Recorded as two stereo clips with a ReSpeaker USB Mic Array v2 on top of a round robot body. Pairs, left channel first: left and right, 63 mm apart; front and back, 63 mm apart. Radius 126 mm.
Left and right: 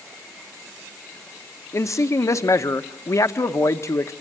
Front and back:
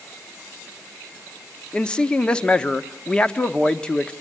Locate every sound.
1.7 s a man speaking: 70° left, 1.2 m